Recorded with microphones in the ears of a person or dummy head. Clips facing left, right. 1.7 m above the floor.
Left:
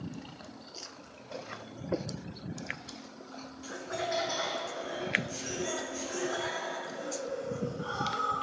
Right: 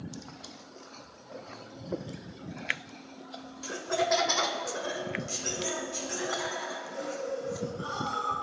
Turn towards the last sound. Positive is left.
turn(degrees=-60)  # may be behind; listen again after turning